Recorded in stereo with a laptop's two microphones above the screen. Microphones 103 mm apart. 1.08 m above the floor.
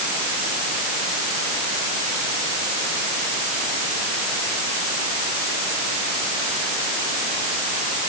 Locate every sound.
Only background noise.